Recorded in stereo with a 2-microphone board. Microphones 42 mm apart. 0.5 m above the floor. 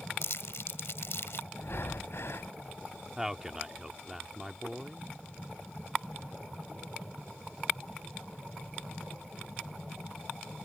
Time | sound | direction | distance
0.2 | crumpling | 75° left (ahead or behind) | ?
1.6 | breathing | 70° left (ahead or behind) | ?
3.2 | a man speaking | 10° right (ahead or behind) | ?